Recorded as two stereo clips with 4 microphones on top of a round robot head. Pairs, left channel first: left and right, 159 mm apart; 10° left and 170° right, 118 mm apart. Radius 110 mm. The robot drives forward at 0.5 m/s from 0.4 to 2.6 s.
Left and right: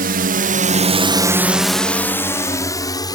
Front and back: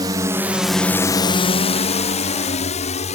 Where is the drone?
115° right; by 3.2 s 25° left.